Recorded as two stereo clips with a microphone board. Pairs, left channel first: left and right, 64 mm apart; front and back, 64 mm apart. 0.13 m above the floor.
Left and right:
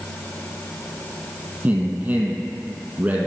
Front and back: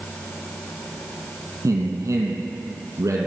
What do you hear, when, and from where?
1.6 s a man speaking: 160° right, 3.5 m